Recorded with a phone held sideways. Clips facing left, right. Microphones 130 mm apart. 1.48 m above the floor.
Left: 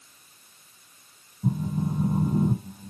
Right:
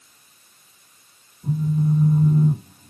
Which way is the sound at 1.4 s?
40° left (ahead or behind).